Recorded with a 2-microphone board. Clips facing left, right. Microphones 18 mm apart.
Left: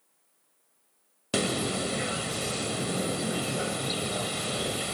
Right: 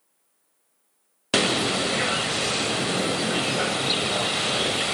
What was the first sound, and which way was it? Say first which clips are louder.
A bird: right 7 dB; 30° right (ahead or behind).